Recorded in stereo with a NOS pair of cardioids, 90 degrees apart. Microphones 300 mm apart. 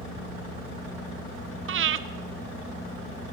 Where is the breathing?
45° right, 0.6 m.